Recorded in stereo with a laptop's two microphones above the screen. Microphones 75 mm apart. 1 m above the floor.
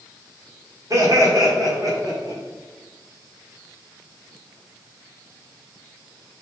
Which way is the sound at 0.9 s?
45° right (ahead or behind).